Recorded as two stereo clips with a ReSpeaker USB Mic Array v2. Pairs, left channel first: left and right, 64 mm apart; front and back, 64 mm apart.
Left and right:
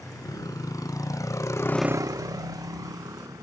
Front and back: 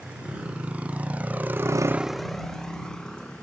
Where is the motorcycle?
110° left; by 3.4 s 75° right.